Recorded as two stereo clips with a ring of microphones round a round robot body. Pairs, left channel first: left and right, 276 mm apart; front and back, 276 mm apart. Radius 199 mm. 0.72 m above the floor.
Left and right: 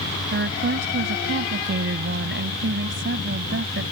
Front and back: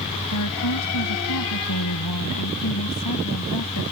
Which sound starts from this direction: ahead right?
A woman speaking, at 0.3 s.